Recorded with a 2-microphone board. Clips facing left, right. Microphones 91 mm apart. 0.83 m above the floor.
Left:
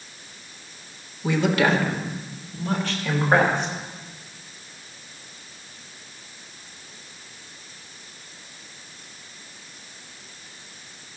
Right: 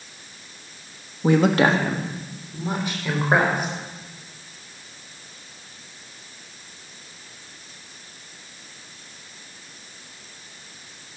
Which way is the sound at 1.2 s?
45° right (ahead or behind).